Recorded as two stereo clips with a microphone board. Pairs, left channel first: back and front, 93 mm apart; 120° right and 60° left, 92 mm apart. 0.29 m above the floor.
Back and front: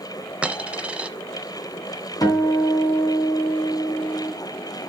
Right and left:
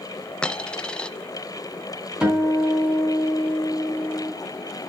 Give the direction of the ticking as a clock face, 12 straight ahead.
I don't hear ticking.